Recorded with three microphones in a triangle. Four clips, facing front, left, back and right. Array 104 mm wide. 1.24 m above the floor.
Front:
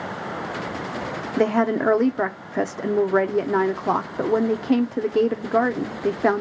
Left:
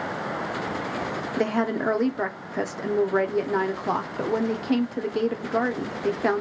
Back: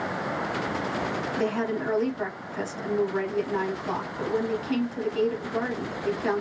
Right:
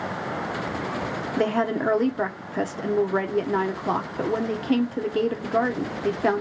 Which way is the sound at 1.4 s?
5° right.